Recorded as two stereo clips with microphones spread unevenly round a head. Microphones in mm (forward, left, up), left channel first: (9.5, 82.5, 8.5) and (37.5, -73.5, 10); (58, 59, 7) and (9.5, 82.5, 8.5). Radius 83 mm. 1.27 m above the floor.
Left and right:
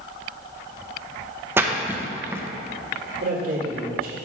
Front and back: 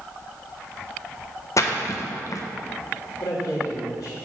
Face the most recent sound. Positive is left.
turn(degrees=-45)